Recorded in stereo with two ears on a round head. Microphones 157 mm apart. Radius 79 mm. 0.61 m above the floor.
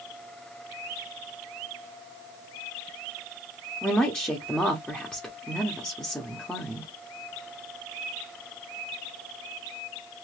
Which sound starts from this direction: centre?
A woman speaking, at 3.8 s.